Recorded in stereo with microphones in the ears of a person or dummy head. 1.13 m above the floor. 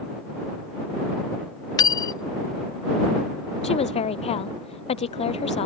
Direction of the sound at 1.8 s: 20° left (ahead or behind).